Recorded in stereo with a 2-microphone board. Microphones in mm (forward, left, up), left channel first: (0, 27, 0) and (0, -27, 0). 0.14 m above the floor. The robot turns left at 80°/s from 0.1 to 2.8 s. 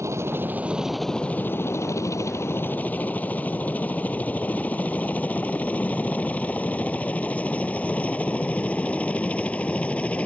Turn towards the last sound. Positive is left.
turn(degrees=25)  # may be behind; listen again after turning